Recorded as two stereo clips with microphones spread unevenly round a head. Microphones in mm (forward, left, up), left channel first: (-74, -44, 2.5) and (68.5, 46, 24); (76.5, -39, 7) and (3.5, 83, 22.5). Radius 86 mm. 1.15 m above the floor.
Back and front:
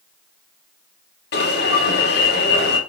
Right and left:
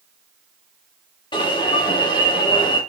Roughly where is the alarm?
Behind right.